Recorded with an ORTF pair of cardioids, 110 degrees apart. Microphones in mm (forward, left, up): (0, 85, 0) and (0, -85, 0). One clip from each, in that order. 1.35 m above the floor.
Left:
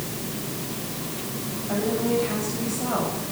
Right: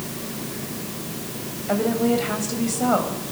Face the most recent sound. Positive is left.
turn(degrees=-60)